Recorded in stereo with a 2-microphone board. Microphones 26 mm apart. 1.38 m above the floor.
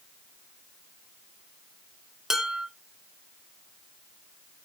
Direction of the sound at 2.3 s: 20° right (ahead or behind).